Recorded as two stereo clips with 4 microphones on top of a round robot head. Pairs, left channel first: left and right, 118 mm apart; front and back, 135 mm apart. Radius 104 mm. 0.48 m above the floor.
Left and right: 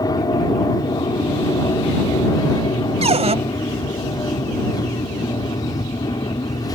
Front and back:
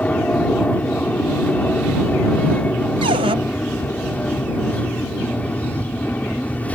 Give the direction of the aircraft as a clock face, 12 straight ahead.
10 o'clock.